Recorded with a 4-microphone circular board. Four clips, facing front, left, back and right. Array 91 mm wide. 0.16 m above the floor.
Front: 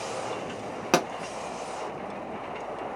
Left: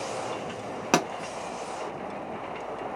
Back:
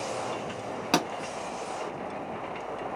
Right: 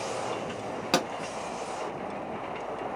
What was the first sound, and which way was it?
A pop, 55° left.